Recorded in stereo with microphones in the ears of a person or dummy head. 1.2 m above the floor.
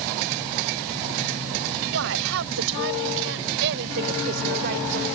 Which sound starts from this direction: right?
A woman speaking, at 1.9 s.